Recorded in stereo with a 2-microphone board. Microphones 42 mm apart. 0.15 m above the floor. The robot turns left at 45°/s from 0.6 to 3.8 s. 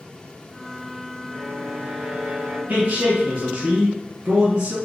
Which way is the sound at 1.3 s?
85° right.